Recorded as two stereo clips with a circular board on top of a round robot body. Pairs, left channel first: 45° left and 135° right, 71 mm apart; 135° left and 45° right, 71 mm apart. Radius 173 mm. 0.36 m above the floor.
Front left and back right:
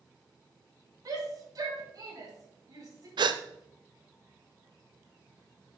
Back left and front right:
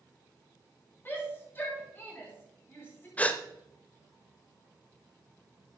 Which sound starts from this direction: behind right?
A gasp, at 3.2 s.